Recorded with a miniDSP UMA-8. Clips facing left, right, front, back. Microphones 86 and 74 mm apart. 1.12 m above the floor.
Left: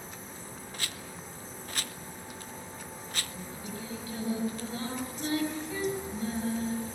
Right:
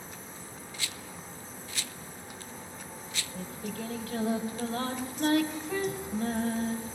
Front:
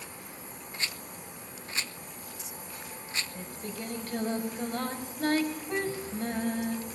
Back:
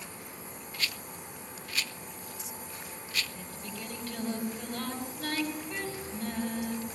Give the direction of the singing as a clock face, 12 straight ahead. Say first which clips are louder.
Right 3 dB, front 3 dB; 2 o'clock.